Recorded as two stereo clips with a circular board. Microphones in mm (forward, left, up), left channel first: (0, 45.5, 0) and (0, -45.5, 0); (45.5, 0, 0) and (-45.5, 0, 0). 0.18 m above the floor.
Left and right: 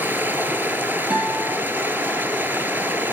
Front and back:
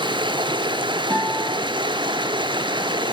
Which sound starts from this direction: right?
A guitar, at 1.1 s.